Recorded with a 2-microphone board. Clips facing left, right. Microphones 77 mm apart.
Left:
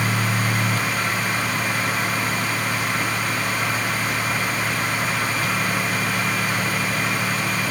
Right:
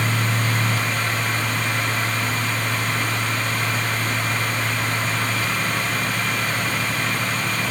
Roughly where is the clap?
I don't hear a clap.